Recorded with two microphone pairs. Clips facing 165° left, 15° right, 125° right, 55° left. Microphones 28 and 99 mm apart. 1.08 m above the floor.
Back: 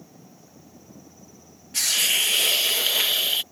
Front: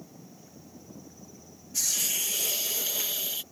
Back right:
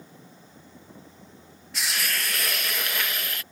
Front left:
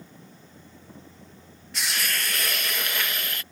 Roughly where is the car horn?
I don't hear a car horn.